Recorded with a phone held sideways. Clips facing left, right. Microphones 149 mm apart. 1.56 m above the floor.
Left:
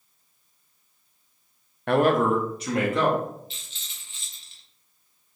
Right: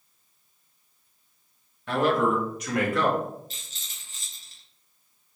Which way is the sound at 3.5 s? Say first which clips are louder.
Even; 40° right (ahead or behind).